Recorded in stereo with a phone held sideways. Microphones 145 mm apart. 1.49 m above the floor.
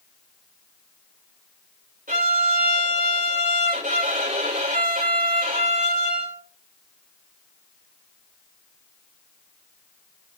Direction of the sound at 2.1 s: 70° right (ahead or behind).